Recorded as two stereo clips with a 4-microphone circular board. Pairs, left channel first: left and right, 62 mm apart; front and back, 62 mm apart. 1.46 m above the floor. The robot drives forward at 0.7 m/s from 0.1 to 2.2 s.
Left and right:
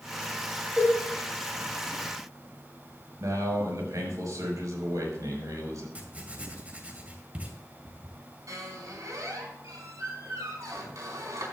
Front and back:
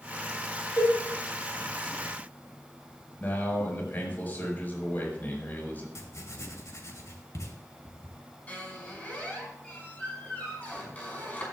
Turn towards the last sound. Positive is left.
turn(degrees=-65)